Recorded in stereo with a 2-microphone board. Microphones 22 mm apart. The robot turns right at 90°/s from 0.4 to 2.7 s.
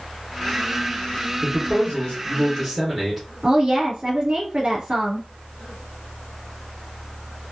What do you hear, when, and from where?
1.4 s a man speaking: 60° left, 1.5 m; by 3.3 s 175° left, 1.5 m
3.4 s a woman speaking: 45° right (ahead or behind), 1.5 m